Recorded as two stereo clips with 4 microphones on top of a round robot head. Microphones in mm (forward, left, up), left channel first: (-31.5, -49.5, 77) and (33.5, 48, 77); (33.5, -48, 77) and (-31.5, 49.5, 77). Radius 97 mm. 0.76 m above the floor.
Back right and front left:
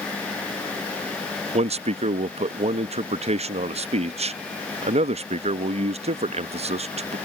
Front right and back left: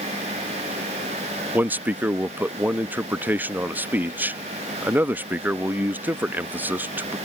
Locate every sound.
1.5 s a man speaking: 50° left